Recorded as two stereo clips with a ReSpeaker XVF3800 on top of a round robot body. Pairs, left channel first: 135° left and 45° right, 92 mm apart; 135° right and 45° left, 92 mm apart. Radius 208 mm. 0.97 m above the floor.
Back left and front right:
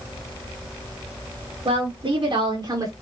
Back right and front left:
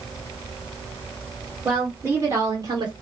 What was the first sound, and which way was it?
A woman speaking, 20° right.